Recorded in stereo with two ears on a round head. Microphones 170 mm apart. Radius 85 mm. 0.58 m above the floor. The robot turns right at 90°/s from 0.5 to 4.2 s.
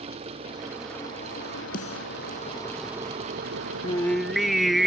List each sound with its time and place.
0.0 s an engine running: 30° right; by 4.9 s 55° right
1.7 s a snare drum: 50° left (ahead or behind); by 2.0 s 25° left (ahead or behind)
3.8 s singing: 150° left; by 4.9 s straight behind